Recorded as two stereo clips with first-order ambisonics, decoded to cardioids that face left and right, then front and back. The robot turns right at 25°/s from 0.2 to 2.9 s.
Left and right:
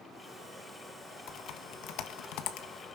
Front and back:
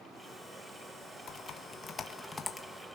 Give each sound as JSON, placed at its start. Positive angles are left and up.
{"t": 1.3, "sound": "typing on a keyboard", "azimuth_deg": 50, "distance_m": 1.4}